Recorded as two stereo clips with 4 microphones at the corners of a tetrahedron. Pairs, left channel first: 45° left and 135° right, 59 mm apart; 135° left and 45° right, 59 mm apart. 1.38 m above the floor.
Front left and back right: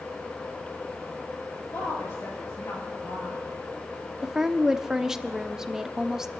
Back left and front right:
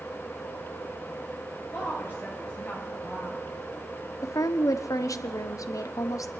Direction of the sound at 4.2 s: 145° left.